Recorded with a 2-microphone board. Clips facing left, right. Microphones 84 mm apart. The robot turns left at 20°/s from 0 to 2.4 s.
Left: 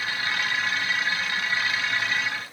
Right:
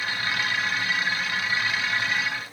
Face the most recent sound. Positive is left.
No sound to turn to.